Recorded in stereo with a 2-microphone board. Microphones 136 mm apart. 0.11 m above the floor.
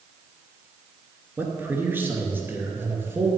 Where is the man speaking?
15° right (ahead or behind), 1.7 m.